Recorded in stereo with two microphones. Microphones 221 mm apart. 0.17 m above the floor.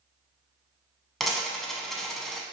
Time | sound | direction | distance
1.2 | a dropped coin | centre (ahead or behind) | 0.5 m